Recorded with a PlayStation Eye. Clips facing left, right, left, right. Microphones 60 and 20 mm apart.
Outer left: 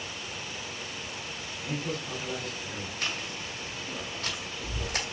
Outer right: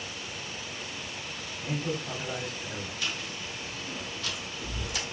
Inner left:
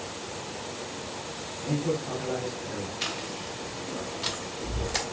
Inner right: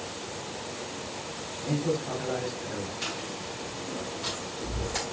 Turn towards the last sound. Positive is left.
turn(degrees=55)  # may be behind; listen again after turning